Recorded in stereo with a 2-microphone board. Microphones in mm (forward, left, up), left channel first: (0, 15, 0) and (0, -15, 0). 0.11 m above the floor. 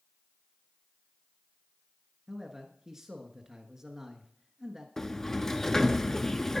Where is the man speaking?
15° right (ahead or behind), 1.3 m.